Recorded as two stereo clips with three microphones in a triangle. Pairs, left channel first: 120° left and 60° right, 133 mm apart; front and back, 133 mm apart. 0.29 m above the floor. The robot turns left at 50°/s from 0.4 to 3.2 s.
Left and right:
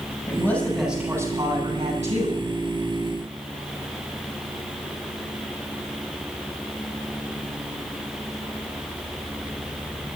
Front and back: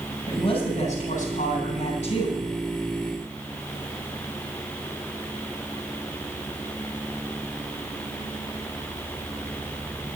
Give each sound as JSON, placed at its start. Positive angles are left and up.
{"t": 0.3, "sound": "a man speaking", "azimuth_deg": 50, "distance_m": 9.5}